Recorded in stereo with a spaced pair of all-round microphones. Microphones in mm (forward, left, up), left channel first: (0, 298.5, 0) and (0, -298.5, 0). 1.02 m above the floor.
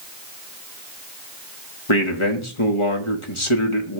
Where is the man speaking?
55° left (ahead or behind), 1.3 m.